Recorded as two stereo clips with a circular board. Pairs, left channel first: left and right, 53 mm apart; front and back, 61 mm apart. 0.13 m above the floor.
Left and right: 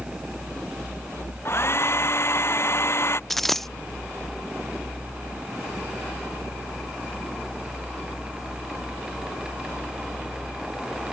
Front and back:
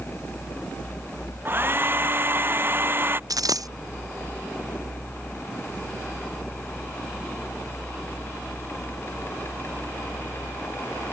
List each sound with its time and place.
1.4 s a hair dryer: 125° left
3.3 s a dropped coin: 175° left